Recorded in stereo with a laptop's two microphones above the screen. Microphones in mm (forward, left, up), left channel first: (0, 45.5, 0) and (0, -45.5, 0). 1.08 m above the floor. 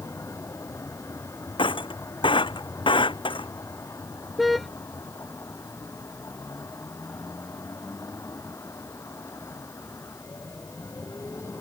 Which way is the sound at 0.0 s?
35° left (ahead or behind).